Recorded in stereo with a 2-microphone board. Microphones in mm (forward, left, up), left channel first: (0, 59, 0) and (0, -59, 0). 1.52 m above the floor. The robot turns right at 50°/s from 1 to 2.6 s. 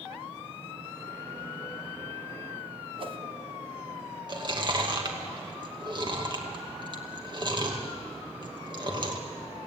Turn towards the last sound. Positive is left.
turn(degrees=-40)  # may be behind; listen again after turning